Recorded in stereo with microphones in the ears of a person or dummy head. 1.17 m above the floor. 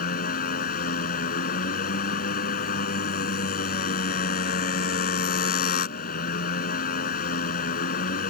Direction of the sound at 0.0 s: 55° left (ahead or behind).